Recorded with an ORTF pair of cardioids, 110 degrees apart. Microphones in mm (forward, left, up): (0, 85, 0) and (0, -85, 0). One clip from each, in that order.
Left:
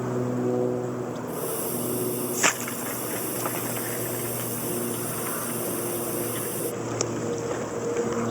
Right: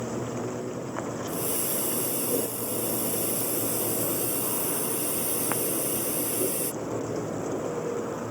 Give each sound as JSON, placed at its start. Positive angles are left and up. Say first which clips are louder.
{"t": 1.3, "sound": "a hiss", "louder": "left 1 dB", "azimuth_deg": -30}